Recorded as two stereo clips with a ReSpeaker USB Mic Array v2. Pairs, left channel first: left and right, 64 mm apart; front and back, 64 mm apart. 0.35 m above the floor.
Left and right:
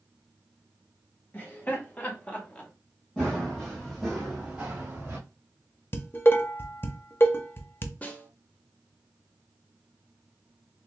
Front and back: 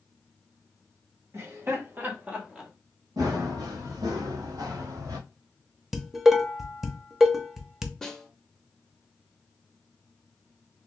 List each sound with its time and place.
1.3 s laughter: 145° left, 1.7 m; by 2.7 s 105° left, 1.0 m
3.2 s running footsteps: 170° left, 2.5 m; by 5.2 s 155° right, 1.8 m
5.9 s dishes clattering: 100° left, 0.7 m
8.0 s a snare drum: 70° left, 0.7 m